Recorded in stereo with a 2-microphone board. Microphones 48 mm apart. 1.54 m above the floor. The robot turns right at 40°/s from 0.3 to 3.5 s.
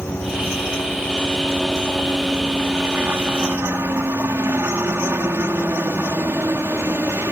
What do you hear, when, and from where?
0.0 s a helicopter: 110° left; by 7.3 s 120° right